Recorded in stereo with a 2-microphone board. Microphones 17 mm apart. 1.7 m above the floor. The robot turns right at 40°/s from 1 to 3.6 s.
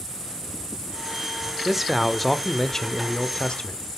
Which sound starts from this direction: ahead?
A man speaking, at 1.6 s.